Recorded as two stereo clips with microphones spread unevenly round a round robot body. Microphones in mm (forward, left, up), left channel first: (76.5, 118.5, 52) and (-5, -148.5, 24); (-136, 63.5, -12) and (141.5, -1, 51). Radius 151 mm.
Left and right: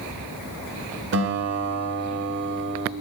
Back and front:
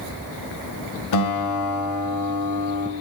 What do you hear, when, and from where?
1.1 s a guitar: 160° right, 1.5 m